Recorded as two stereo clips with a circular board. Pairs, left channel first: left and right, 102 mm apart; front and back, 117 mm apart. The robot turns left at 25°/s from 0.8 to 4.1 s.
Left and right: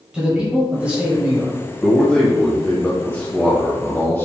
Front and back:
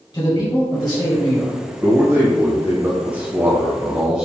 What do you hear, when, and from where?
0.1 s a man speaking: 15° right, 1.2 m; by 1.6 s 35° right, 1.2 m
1.8 s a man speaking: 170° left, 0.9 m; by 4.2 s 110° left, 0.9 m